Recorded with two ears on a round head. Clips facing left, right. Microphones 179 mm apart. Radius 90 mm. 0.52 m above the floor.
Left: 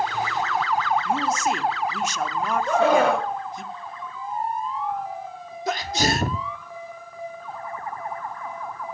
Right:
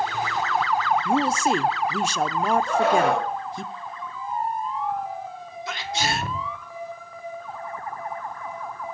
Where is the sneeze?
35° left (ahead or behind), 0.8 m.